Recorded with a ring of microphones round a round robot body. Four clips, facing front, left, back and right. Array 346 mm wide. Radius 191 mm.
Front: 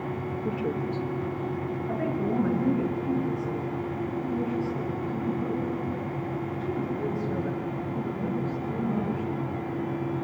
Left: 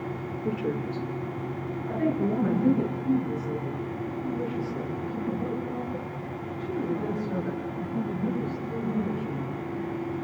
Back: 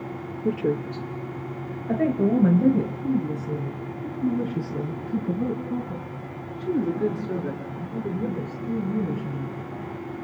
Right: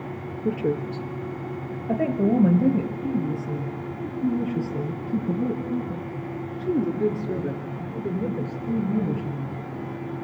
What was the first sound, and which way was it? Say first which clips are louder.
A woman speaking: right 5 dB, back 6 dB; 140° right.